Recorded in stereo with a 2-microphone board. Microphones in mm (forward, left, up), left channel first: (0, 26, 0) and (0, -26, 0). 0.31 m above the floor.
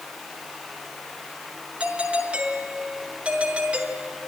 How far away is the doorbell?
About 5.5 m.